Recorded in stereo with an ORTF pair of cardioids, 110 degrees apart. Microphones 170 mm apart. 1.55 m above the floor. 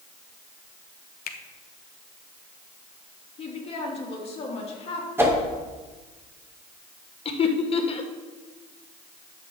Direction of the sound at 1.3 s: 60° left.